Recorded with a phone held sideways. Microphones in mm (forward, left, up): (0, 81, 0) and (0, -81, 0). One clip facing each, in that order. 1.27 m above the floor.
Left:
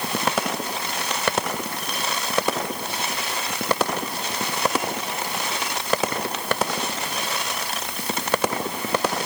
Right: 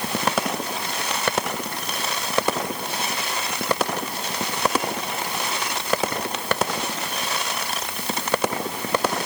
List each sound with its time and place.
Only background noise.